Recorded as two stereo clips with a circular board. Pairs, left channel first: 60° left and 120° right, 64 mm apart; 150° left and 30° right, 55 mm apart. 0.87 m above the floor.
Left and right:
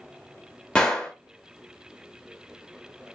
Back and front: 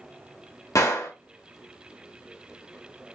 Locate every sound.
0.8 s a gunshot: 135° left, 1.1 m